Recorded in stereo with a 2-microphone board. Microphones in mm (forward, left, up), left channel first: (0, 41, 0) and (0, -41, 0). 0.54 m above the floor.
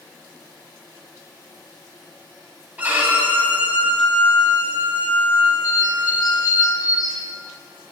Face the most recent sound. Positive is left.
turn(degrees=50)  # may be behind; listen again after turning